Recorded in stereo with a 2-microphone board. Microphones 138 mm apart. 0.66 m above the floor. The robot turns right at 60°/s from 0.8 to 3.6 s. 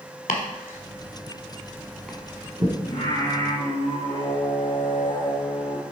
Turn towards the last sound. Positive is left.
turn(degrees=90)